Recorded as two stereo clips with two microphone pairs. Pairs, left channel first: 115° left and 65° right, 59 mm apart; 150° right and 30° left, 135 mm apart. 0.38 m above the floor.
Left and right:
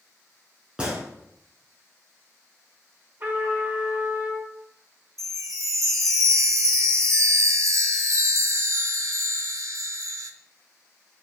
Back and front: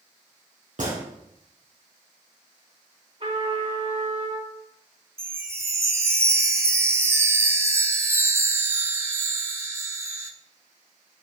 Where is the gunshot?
10° left, 3 m.